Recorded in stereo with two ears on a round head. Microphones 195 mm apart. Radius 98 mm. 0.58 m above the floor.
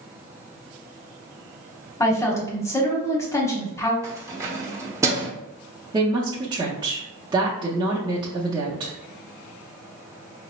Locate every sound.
2.0 s a woman speaking: 15° left (ahead or behind), 1.0 m
4.0 s keys jangling: 15° right (ahead or behind), 0.8 m
5.9 s a woman speaking: 20° right (ahead or behind), 0.7 m